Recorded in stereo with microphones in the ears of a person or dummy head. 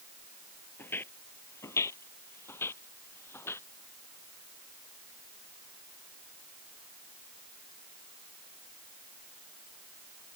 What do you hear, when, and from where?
0.8 s footsteps: 10° left (ahead or behind)